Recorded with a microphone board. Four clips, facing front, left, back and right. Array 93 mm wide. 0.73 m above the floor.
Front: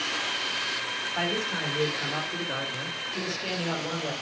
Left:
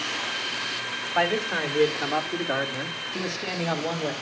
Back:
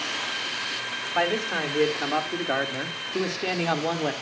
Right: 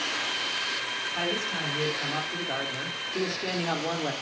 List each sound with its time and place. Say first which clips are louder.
1.1 s a man speaking: left 8 dB, back 6 dB; 135° left, 3 m; by 4.1 s 175° right, 2.5 m